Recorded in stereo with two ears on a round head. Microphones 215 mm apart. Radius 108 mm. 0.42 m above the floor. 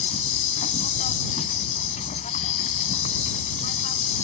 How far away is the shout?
I don't hear a shout.